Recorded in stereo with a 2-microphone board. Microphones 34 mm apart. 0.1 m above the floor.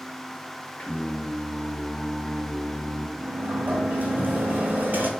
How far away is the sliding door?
About 0.6 m.